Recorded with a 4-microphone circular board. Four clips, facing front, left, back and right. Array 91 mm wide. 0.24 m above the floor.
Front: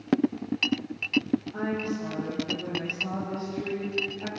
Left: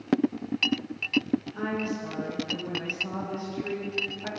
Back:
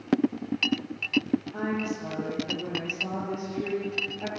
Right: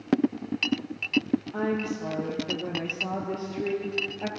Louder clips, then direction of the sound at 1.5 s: Right 2 dB, even; 100° right.